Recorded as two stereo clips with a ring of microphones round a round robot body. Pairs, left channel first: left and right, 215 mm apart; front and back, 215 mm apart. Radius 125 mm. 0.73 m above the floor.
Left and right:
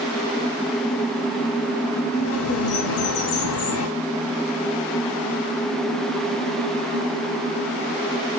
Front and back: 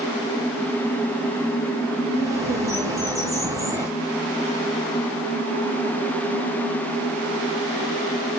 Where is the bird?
100° left, 2.5 m.